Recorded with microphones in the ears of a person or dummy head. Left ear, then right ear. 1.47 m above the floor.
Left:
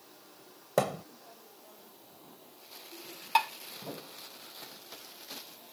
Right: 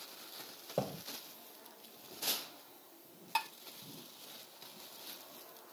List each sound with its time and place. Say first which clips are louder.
0.8 s a thud: left 9 dB; 60° left (ahead or behind)
3.4 s dishes clattering: left 9 dB; 20° left (ahead or behind)